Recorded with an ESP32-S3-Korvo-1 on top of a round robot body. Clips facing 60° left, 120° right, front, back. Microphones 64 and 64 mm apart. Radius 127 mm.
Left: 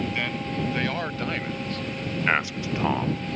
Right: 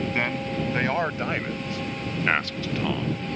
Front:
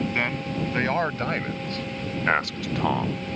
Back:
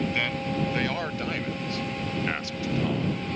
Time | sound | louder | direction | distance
0.1 | a man speaking | right 2 dB, front 1 dB | 60° right | ?